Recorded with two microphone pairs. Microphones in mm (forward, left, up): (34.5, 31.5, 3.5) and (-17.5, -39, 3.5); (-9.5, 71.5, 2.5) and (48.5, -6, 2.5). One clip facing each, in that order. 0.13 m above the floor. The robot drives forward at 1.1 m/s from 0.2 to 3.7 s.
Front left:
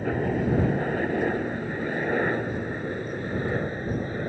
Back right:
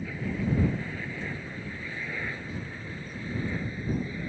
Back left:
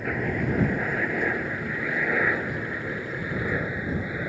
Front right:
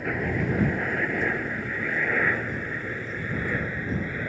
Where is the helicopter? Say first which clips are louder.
Front left 7 dB, even; 40° left; by 4.3 s 50° left.